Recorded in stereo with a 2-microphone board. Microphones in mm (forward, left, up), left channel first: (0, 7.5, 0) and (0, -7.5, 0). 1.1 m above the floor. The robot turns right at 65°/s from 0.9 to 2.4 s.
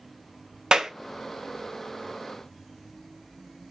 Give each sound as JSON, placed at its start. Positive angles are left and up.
{"t": 0.7, "sound": "a clap", "side_deg": -65, "distance_m": 0.6}